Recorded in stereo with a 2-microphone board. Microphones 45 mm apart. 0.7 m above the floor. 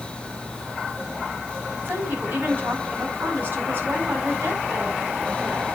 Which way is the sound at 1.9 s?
40° right (ahead or behind).